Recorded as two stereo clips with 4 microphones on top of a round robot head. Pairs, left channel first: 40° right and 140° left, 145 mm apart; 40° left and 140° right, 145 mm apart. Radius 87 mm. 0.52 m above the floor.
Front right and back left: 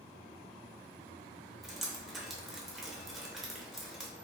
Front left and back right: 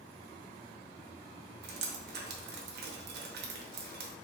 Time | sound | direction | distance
1.6 | dripping | 130° right | 0.7 m